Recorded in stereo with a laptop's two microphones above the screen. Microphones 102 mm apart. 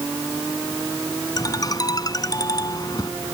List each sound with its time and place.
1.4 s a ringtone: 40° left (ahead or behind)